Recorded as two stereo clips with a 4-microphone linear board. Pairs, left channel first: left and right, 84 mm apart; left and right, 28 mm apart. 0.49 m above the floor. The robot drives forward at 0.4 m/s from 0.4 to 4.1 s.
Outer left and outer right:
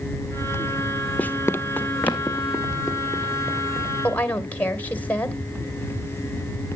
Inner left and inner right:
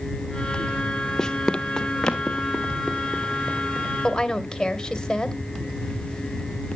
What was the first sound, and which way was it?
Running footsteps, 15° left (ahead or behind).